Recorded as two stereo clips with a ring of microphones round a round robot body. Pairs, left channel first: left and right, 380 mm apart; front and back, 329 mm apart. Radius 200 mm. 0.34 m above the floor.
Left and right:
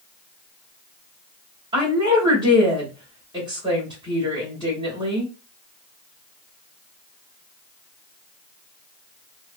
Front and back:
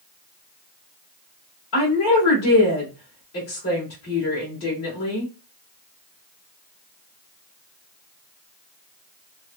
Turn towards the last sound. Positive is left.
turn(degrees=-15)